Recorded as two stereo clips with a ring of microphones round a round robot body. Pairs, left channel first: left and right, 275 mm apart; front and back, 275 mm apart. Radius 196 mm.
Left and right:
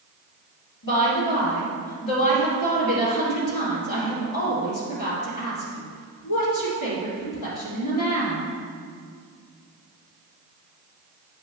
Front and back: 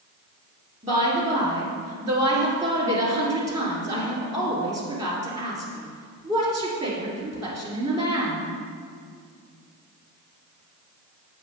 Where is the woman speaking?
110° left, 2.5 m.